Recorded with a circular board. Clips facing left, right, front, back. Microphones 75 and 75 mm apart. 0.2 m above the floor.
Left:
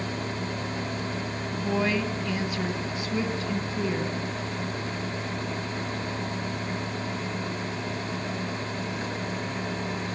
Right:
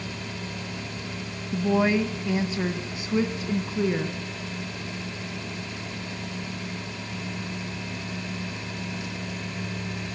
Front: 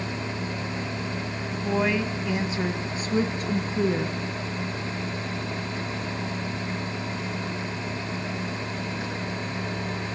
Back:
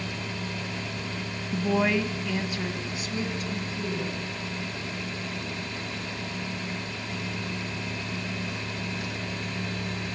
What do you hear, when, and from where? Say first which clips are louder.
1.5 s a woman speaking: right 5 dB, back 1 dB; 120° right, 1.3 m; by 4.2 s 20° right, 2.5 m